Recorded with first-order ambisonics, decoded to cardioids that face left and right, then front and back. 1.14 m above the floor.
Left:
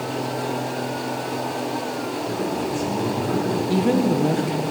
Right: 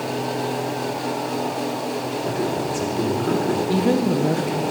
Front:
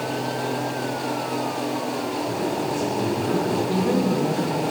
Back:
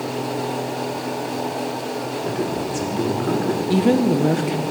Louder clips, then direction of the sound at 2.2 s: Right 2 dB, back 2 dB; 145° right.